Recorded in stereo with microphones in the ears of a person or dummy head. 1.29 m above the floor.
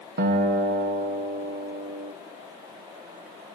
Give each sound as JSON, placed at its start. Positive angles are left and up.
{"t": 0.2, "sound": "a guitar", "side_deg": -55, "distance_m": 0.9}